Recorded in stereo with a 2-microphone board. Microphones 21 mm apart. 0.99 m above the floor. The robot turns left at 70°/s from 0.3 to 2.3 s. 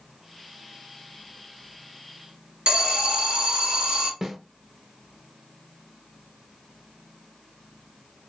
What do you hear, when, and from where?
2.7 s an alarm: 60° right (ahead or behind), 1.0 m
4.2 s a snare drum: 25° right (ahead or behind), 0.6 m